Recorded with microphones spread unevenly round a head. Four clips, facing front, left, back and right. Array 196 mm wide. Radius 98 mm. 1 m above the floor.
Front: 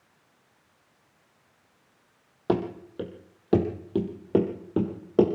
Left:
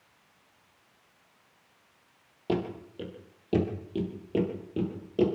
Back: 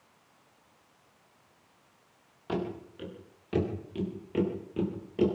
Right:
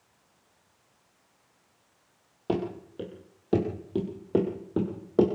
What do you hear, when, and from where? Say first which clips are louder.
2.5 s running footsteps: right 1 dB, front 7 dB; 5° right, 5 m; by 5.3 s 25° right, 5.5 m